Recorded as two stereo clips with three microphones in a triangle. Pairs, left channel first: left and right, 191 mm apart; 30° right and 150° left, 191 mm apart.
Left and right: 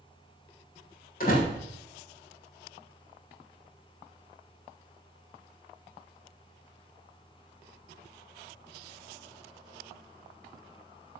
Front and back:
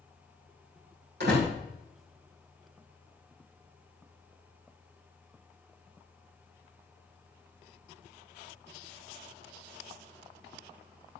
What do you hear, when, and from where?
1.2 s a door slam: 130° left, 6 m